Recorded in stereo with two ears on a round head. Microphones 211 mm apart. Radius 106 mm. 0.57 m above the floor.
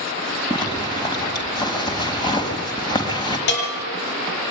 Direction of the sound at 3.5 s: 55° left (ahead or behind).